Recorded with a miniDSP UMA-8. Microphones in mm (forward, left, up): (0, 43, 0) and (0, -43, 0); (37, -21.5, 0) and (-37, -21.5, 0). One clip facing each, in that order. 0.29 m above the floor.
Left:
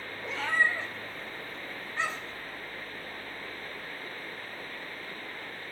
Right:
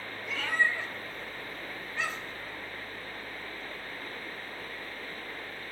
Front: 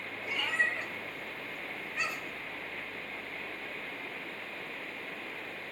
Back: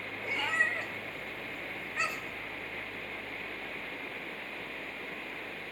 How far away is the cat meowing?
About 0.8 m.